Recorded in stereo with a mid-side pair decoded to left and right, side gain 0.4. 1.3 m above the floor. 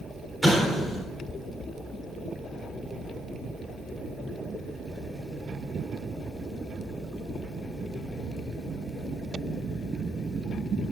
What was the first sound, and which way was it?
An explosion, straight ahead.